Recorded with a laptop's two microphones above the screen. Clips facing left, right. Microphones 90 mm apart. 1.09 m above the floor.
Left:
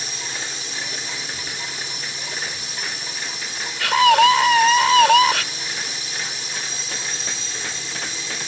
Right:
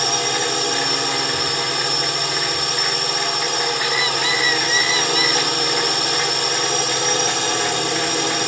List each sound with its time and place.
0.0 s a drone: 65° right (ahead or behind)
3.8 s a scream: 80° left